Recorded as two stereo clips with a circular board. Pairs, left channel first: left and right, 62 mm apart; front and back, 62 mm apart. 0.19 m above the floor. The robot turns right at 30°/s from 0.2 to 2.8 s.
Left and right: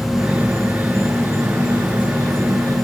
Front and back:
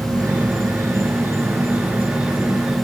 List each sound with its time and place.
0.0 s an insect: 170° right, 5 m; by 2.9 s 90° right, 5 m